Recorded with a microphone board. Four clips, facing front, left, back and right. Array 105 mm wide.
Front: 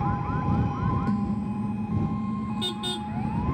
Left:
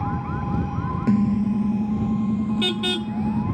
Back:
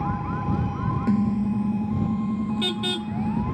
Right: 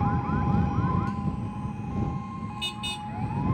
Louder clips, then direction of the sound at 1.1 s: Left 12 dB, back 5 dB; 115° left.